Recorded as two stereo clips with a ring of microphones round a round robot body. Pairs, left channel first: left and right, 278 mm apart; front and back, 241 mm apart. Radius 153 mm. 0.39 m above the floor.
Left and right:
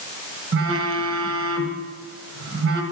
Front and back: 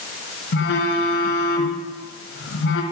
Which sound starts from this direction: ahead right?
A phone buzzing, at 0.5 s.